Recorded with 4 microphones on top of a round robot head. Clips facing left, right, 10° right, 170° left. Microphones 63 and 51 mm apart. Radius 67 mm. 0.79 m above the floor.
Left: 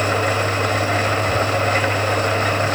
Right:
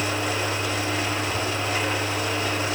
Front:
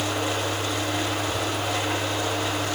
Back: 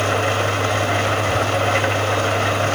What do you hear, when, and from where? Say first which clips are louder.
0.0 s an engine running: left 7 dB, back 7 dB; 130° left, 4 m